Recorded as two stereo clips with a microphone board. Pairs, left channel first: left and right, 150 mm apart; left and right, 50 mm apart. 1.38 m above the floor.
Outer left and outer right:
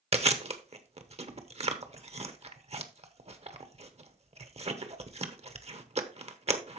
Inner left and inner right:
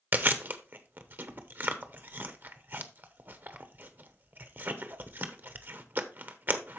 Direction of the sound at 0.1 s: 45° right (ahead or behind).